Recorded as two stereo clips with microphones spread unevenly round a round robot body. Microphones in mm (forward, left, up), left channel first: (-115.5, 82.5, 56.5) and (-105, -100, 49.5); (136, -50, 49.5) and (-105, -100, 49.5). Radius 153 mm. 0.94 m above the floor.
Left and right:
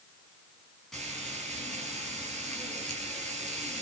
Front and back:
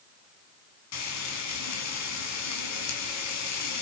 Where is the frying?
5° left, 4.5 m.